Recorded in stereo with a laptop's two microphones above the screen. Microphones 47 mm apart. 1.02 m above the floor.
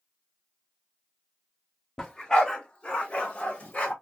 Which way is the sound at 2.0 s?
10° left (ahead or behind).